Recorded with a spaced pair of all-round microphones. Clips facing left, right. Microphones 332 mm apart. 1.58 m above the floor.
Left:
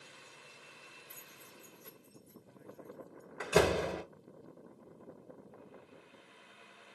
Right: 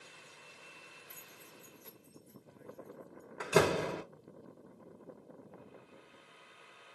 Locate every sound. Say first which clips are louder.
1.1 s keys jangling: even; 30° left (ahead or behind), 0.7 m; by 3.3 s 5° left (ahead or behind), 2 m
3.4 s a door slam: even; centre (ahead or behind), 0.9 m